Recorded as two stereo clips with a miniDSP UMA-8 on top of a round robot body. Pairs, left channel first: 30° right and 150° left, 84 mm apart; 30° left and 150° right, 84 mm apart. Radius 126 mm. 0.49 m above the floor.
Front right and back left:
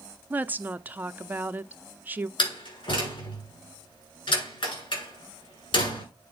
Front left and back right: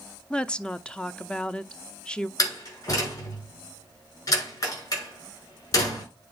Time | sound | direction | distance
0.3 | a woman speaking | 100° left | 0.7 m
2.4 | a door slam | 15° right | 6.5 m